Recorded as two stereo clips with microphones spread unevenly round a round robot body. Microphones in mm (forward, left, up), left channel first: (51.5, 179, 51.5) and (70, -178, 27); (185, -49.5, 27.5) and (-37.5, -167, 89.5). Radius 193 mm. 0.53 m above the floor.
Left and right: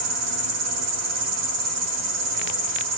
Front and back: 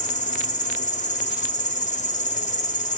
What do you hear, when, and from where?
0.0 s an insect: 35° right, 0.8 m